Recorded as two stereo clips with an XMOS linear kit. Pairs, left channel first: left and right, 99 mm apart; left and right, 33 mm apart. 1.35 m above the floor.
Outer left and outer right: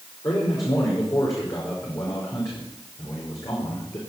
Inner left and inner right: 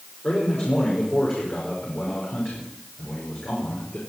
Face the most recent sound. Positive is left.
turn(degrees=35)  # may be behind; listen again after turning